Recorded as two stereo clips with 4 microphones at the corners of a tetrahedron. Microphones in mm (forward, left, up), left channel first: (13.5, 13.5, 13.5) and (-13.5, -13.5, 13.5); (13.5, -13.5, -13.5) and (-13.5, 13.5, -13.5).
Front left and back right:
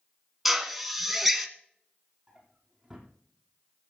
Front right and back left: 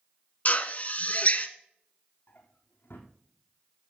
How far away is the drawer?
About 2.5 m.